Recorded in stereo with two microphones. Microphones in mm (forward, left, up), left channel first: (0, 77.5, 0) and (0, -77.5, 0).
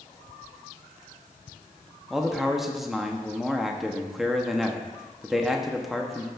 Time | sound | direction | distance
2.1 | a man speaking | centre (ahead or behind) | 0.8 m